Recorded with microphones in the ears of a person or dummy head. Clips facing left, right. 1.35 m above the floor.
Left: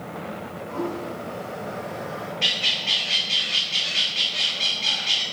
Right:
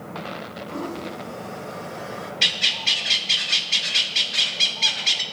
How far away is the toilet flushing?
About 2 m.